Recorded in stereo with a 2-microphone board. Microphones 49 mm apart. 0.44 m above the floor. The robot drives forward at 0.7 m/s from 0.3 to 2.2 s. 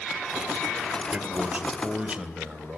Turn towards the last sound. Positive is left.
turn(degrees=-25)  # may be behind; listen again after turning